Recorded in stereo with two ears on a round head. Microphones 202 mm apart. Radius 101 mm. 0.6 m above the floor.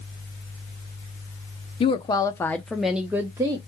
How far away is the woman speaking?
About 0.6 m.